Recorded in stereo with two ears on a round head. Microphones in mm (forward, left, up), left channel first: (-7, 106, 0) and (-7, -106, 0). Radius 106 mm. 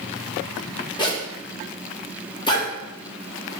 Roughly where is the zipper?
Centre.